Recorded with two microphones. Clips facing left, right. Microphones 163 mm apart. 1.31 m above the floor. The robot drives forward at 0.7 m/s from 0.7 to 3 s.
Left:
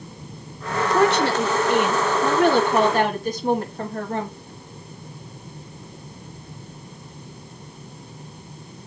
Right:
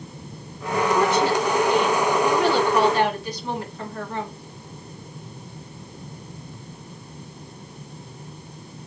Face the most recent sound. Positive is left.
turn(degrees=45)  # may be behind; listen again after turning